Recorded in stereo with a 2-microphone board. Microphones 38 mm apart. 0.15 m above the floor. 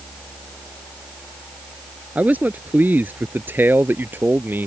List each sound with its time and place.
2.1 s a man speaking: 45° right (ahead or behind); by 4.7 s 60° right (ahead or behind)